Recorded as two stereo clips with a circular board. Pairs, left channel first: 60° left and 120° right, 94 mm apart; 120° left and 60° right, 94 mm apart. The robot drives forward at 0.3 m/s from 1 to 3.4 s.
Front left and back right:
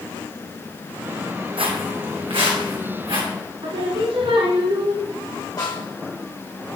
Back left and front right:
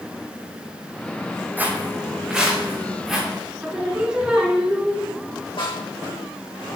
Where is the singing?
140° right, 1.3 m.